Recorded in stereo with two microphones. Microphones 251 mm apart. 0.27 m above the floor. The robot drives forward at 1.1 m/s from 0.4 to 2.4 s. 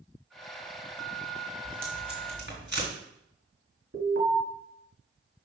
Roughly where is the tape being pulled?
Right.